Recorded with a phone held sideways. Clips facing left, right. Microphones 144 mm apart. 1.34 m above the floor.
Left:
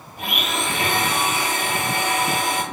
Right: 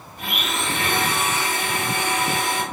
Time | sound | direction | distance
0.2 | a blender | 65° left (ahead or behind) | 1.9 m